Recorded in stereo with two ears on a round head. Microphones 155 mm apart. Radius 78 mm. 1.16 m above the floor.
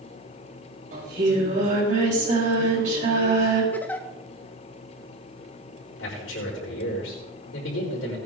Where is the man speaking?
80° left, 4.5 m.